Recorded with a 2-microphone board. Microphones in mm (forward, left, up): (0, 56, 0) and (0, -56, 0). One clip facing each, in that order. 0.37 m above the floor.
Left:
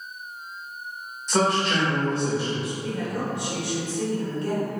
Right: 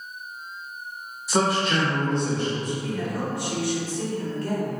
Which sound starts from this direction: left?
A woman speaking, at 2.8 s.